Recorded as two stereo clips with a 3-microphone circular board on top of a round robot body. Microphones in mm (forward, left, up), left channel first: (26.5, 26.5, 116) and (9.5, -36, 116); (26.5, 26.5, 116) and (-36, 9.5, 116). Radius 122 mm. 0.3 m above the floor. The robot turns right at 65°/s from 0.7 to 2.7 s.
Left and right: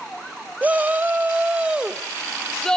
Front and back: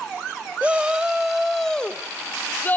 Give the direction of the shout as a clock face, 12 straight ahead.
4 o'clock.